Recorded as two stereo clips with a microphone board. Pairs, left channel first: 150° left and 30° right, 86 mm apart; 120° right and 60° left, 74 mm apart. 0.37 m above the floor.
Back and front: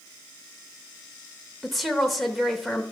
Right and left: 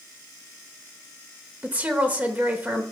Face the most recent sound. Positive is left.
turn(degrees=60)